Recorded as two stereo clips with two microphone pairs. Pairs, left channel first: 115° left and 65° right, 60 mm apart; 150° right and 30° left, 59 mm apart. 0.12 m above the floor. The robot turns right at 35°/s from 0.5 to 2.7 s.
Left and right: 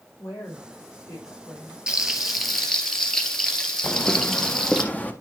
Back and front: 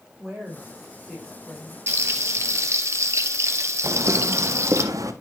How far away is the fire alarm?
I don't hear a fire alarm.